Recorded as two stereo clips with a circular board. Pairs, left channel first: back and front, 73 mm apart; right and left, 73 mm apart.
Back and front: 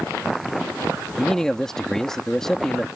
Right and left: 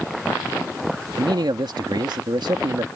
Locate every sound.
1.2 s a man speaking: 95° left